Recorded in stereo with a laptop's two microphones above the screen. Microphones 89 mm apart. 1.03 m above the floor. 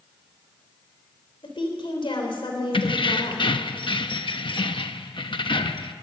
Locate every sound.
1.4 s a woman speaking: 80° left, 3.5 m
2.7 s keys jangling: 75° left (ahead or behind), 0.9 m